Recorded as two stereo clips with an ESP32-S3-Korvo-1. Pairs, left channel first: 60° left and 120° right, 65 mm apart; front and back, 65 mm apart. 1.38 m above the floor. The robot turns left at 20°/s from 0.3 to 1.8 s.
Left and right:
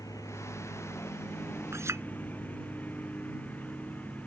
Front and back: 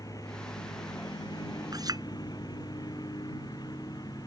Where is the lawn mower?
30° left; by 4.3 s 5° right.